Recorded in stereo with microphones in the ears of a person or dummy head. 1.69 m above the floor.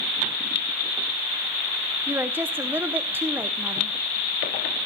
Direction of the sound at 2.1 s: 10° right (ahead or behind).